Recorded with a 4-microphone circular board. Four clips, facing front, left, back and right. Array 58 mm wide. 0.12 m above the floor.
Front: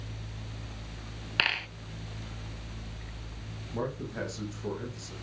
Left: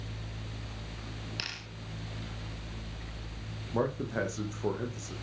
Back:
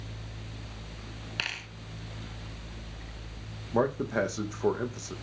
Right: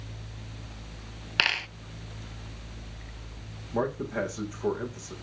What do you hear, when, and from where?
1.4 s a dropped coin: 60° right, 0.5 m
3.7 s a man speaking: straight behind, 5 m